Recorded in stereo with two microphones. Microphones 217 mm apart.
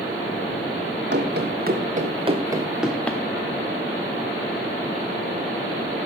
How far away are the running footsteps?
About 2 m.